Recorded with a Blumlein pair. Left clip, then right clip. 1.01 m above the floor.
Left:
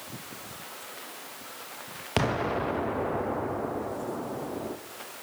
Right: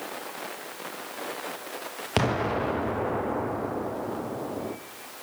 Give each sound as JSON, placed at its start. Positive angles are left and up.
{"t": 2.2, "sound": "an explosion", "azimuth_deg": -5, "distance_m": 0.5}